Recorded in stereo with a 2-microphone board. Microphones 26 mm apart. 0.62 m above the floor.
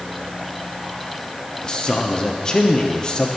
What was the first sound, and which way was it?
A man speaking, 30° left (ahead or behind).